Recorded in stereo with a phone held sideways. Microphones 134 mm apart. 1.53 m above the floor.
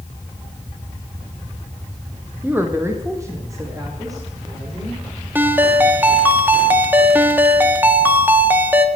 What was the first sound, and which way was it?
A woman speaking, 10° right (ahead or behind).